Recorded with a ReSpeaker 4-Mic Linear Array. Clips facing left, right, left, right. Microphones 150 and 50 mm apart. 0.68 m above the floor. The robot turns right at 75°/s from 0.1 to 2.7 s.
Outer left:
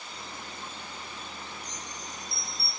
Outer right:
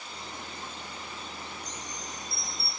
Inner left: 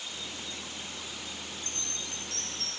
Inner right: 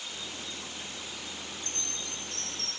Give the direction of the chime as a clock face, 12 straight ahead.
2 o'clock.